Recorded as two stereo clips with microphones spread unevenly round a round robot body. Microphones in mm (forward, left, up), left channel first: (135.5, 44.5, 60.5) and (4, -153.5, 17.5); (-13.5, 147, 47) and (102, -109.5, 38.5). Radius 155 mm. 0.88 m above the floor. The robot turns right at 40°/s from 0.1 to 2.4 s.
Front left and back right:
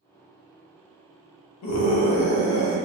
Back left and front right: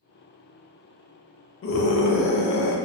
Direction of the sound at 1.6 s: 70° left.